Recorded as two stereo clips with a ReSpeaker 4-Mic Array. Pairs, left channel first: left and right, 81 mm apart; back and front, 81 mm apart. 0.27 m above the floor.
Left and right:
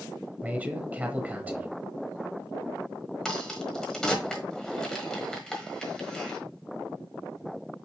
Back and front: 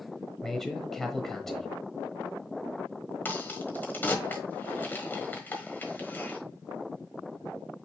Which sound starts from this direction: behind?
A crack, at 3.2 s.